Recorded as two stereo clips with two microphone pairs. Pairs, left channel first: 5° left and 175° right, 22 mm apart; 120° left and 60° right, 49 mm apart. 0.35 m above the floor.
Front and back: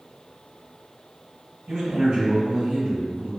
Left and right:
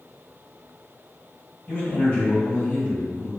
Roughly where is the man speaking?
Behind.